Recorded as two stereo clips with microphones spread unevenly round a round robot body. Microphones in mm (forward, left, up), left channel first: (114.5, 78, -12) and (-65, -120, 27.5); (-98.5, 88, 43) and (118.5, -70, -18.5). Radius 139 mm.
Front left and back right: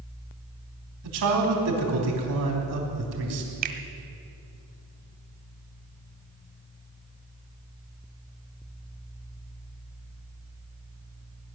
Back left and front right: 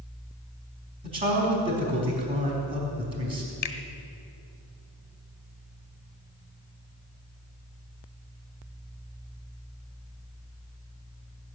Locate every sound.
1.0 s a man speaking: 100° right, 4 m
3.6 s a finger snap: 155° right, 1.3 m